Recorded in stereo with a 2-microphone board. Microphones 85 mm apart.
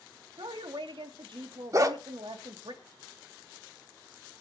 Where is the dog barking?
40° right (ahead or behind), 1.3 m.